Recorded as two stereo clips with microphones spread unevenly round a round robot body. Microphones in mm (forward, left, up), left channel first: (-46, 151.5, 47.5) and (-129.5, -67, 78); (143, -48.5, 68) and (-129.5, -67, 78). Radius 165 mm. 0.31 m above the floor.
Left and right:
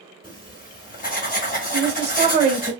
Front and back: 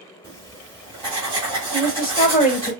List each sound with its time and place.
0.2 s writing: 115° left, 1.4 m
1.7 s a woman speaking: 45° right, 1.6 m